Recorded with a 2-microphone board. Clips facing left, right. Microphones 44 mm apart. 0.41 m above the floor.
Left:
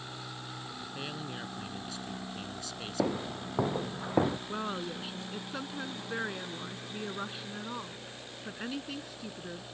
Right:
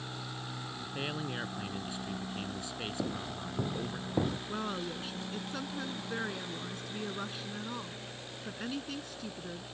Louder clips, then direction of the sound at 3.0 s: Left 9 dB; 80° left.